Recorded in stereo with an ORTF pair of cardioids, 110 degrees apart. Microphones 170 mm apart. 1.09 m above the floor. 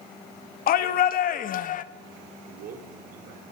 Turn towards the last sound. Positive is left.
turn(degrees=-60)